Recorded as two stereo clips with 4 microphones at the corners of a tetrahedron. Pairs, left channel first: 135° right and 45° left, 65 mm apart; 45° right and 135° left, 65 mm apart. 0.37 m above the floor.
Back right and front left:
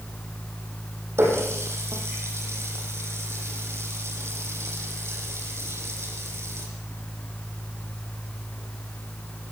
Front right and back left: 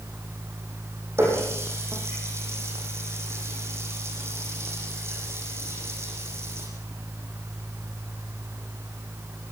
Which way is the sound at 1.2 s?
90° left.